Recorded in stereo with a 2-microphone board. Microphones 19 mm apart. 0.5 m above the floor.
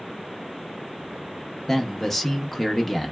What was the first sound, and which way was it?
A man speaking, 20° left (ahead or behind).